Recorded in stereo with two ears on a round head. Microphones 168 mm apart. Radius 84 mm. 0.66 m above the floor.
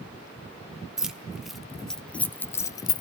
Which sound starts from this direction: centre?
Keys jangling, at 1.0 s.